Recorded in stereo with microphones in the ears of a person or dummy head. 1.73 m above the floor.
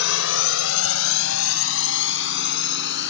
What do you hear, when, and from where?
0.0 s a drone: 70° left (ahead or behind); by 3.1 s 65° left (ahead or behind)